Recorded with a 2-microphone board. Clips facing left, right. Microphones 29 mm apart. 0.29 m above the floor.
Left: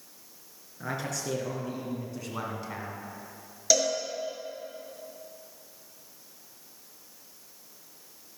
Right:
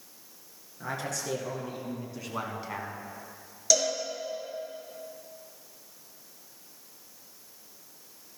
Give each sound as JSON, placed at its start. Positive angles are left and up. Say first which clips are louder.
{"t": 0.8, "sound": "a man speaking", "louder": "even", "side_deg": 5, "distance_m": 4.5}
{"t": 3.7, "sound": "a cowbell", "louder": "left 1 dB", "side_deg": 10, "distance_m": 5.0}